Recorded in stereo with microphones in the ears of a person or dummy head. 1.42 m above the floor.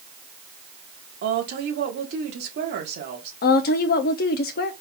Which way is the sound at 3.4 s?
50° left (ahead or behind).